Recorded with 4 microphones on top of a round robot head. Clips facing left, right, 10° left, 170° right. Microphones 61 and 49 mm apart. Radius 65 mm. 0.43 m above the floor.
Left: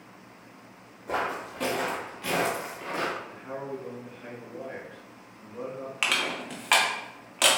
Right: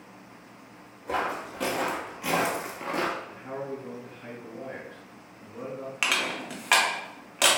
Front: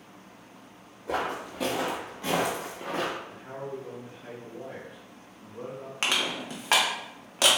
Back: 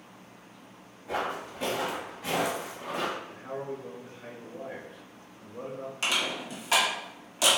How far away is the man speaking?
About 0.9 m.